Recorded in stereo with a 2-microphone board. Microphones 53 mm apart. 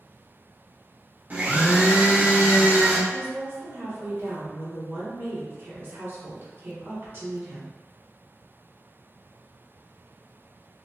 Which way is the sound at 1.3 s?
30° right (ahead or behind).